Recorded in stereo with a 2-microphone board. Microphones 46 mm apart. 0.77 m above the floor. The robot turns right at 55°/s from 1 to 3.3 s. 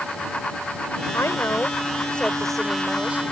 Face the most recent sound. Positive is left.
turn(degrees=-135)